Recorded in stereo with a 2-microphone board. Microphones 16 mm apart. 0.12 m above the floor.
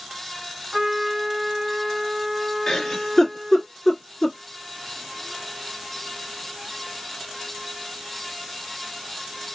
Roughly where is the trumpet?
Centre.